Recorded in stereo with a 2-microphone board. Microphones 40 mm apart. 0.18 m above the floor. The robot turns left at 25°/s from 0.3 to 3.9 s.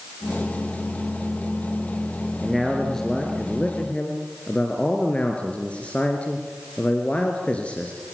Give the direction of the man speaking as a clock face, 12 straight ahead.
6 o'clock.